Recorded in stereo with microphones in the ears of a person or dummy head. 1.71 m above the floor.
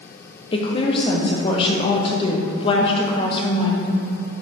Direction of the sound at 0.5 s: 25° left (ahead or behind).